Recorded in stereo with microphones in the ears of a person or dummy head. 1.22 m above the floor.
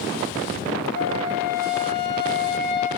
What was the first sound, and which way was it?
A flute, 55° left (ahead or behind).